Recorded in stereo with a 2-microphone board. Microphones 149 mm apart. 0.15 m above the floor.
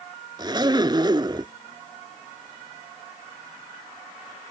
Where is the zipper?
30° right (ahead or behind).